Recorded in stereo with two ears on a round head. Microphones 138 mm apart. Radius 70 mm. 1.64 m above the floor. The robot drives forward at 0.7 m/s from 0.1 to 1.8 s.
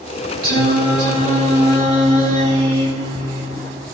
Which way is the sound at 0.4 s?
60° right (ahead or behind).